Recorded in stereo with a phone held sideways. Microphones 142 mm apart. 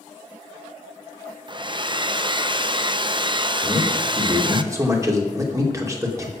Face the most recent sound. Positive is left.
turn(degrees=-25)  # may be behind; listen again after turning